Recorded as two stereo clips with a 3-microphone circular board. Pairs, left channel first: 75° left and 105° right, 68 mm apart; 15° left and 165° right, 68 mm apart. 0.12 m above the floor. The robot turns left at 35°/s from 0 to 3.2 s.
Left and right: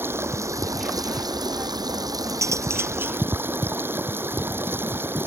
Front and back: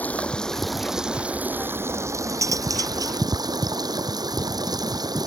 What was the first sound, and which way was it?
Running water, 50° right.